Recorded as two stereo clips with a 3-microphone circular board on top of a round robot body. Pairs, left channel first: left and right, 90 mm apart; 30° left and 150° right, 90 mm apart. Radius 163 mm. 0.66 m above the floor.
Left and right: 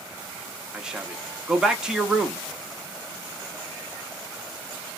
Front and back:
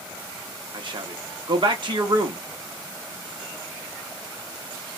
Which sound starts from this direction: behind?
A man speaking, at 0.7 s.